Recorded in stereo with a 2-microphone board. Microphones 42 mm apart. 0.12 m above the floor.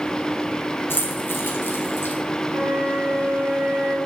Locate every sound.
0.9 s keys jangling: 65° left (ahead or behind), 3 m
2.5 s a flute: 60° right (ahead or behind), 3.5 m